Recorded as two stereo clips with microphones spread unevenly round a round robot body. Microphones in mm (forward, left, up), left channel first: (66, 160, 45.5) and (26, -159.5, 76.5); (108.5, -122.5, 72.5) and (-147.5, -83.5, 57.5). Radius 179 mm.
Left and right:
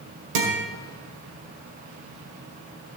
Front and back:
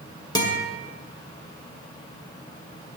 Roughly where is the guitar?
Right.